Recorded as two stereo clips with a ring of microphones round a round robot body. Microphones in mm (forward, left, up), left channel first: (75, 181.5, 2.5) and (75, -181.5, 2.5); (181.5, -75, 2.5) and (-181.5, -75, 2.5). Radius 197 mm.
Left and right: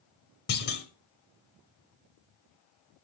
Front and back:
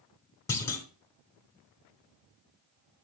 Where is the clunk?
75° left, 1.4 m.